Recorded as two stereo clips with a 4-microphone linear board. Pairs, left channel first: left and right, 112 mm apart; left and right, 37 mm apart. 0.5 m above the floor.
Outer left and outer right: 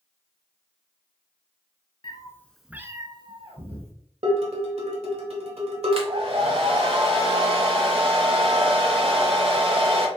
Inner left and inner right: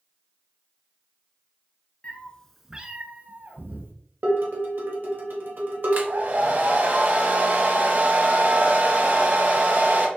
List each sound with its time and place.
2.0 s a cat meowing: 40° left (ahead or behind), 0.8 m; by 3.9 s 65° right (ahead or behind), 1.3 m
4.2 s dishes clattering: 65° right (ahead or behind), 1.2 m
5.9 s a hair dryer: 55° right (ahead or behind), 0.9 m